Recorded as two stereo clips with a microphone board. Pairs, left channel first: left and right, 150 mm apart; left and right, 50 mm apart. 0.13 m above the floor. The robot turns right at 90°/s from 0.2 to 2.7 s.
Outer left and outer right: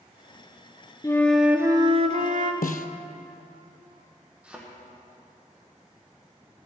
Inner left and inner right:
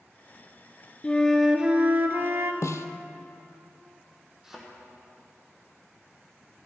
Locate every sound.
1.0 s a flute: 150° left, 0.6 m; by 2.5 s 75° right, 0.6 m
2.6 s a snare drum: 75° left (ahead or behind), 0.6 m; by 2.9 s 70° left (ahead or behind), 0.6 m
4.4 s a thud: 10° right (ahead or behind), 2.5 m